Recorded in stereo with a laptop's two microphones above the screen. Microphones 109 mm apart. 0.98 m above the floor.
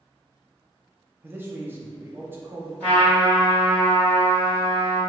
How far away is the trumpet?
About 1.7 m.